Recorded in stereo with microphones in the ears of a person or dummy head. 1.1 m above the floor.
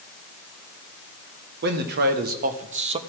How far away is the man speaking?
About 1.9 m.